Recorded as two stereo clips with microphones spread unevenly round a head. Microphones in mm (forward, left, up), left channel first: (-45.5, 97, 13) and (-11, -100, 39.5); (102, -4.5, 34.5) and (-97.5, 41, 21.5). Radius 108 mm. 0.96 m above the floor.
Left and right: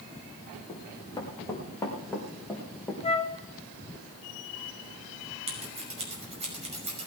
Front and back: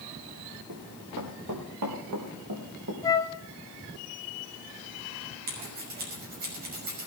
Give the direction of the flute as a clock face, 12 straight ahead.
10 o'clock.